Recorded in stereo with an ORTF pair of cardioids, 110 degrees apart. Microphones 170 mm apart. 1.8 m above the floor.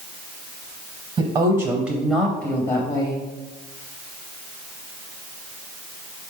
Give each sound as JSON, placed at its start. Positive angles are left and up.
{"t": 1.2, "sound": "a woman speaking", "azimuth_deg": -35, "distance_m": 1.0}